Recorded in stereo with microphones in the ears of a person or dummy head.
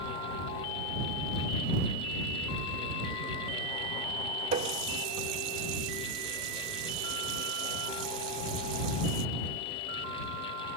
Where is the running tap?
40° right (ahead or behind).